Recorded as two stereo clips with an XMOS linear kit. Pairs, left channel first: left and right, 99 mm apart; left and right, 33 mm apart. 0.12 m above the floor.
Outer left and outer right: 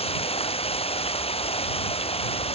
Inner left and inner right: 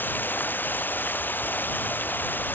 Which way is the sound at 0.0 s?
75° left (ahead or behind).